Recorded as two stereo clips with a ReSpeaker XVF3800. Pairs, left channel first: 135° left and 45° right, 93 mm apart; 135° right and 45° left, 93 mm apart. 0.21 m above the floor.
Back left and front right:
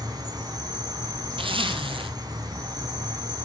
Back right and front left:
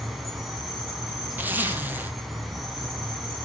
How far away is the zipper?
About 1.9 m.